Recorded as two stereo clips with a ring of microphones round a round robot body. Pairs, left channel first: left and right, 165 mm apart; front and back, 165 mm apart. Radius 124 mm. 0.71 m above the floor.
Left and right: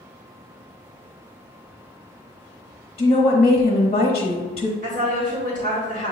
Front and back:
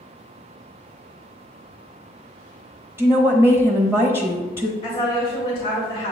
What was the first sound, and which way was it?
A woman speaking, 110° left.